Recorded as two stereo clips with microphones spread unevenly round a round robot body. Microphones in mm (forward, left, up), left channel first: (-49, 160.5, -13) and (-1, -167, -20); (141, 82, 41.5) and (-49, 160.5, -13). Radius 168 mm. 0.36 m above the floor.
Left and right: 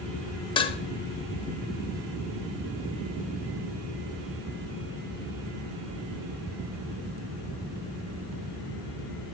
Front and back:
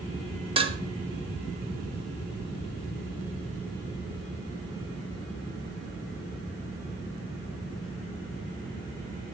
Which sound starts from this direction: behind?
Dishes clattering, at 0.6 s.